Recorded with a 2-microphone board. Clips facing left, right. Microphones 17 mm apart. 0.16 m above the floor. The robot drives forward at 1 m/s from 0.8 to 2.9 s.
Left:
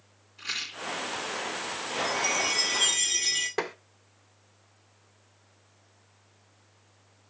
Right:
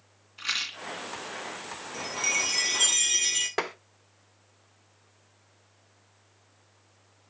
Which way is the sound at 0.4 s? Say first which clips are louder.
Right 3 dB; 40° right (ahead or behind).